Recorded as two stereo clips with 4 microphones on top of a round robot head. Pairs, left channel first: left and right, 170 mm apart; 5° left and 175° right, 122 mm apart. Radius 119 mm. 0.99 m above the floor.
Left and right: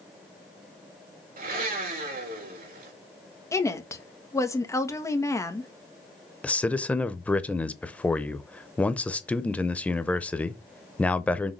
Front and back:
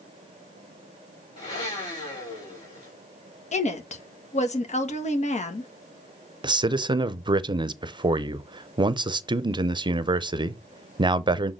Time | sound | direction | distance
1.4 | a blender | 55° right | 4 m
3.5 | a woman speaking | 20° left | 1.8 m
6.4 | a man speaking | 170° left | 0.7 m